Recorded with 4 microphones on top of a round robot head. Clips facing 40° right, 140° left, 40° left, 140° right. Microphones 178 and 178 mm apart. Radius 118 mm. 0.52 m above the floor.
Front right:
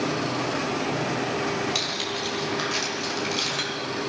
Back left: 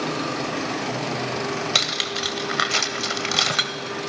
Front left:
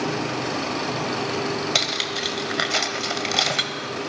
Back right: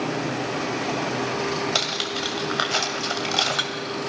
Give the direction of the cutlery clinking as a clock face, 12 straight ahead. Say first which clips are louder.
Back left 1 dB, even; 8 o'clock.